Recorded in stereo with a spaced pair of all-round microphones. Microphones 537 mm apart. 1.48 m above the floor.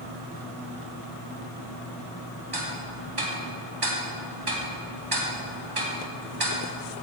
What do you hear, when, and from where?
2.5 s ticking: 45° right (ahead or behind), 1.2 m